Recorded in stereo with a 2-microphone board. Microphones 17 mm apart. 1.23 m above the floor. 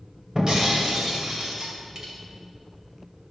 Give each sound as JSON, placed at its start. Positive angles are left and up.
{"t": 0.3, "sound": "breaking glass", "side_deg": -40, "distance_m": 2.5}